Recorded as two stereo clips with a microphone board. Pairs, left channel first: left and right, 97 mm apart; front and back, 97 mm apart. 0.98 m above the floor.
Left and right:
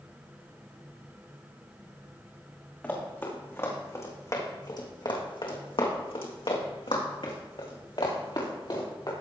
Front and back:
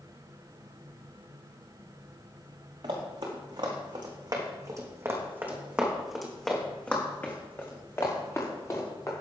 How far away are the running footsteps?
About 4.5 m.